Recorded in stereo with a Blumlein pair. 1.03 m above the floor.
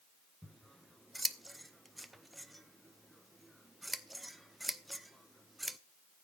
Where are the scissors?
5° right, 0.7 m.